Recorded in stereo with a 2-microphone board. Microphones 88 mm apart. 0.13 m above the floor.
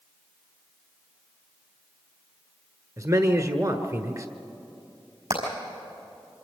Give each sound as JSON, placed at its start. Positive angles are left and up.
{"t": 3.0, "sound": "a man speaking", "side_deg": -40, "distance_m": 1.3}
{"t": 5.3, "sound": "hammering", "side_deg": -80, "distance_m": 5.5}